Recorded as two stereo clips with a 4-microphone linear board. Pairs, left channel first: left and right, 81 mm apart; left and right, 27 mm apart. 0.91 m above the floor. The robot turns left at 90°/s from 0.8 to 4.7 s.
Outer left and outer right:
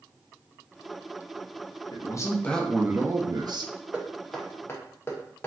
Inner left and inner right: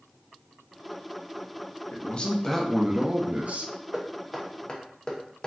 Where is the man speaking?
70° left, 0.5 m; by 3.7 s 95° right, 0.5 m.